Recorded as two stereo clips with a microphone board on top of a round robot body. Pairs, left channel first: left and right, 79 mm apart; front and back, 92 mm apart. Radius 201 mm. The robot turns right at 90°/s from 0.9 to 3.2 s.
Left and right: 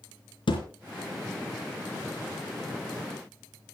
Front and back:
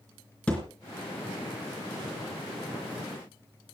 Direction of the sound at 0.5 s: 80° left.